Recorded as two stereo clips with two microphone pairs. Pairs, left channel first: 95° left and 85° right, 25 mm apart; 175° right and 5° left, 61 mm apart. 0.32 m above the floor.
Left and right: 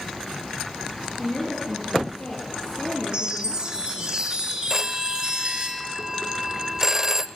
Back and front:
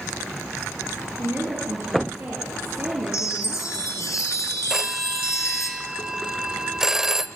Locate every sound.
1.2 s a woman speaking: 60° left, 5.5 m
3.1 s a chime: 145° right, 3 m
4.7 s a phone ringing: 55° right, 0.7 m